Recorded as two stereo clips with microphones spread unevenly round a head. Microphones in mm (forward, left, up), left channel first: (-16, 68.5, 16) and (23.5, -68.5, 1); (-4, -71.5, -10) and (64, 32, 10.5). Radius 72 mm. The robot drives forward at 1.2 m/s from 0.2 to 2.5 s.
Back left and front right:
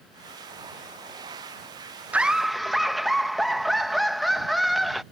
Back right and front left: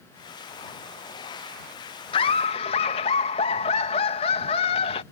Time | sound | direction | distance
2.1 | laughter | 145° right | ?